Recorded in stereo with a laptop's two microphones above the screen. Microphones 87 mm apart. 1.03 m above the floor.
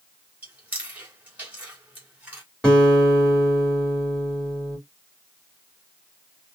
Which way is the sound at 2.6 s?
10° left (ahead or behind).